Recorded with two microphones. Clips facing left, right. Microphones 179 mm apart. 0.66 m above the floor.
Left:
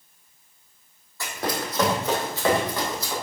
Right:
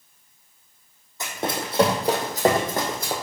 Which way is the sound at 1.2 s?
20° right (ahead or behind).